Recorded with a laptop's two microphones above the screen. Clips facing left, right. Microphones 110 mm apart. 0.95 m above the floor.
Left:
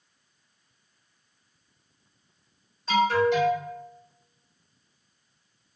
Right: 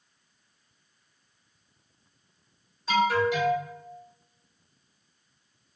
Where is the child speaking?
I don't hear a child speaking.